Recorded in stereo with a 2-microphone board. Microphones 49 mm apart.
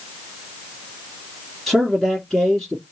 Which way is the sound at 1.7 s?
5° left (ahead or behind).